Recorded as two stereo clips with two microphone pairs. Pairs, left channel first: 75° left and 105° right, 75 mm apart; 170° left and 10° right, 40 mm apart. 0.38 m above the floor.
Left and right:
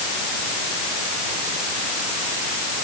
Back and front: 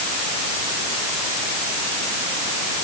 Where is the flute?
No flute in this recording.